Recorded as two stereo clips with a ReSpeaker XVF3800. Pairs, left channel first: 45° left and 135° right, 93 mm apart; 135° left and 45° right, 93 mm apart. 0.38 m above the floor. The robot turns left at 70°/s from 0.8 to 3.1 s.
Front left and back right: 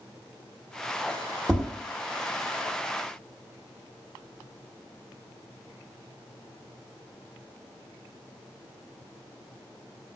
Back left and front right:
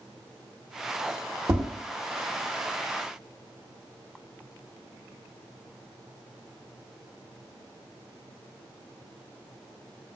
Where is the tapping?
60° right, 1.2 m; by 1.7 s 70° right, 1.2 m.